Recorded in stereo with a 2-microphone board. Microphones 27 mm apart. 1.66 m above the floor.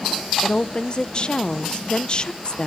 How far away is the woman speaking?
About 0.8 m.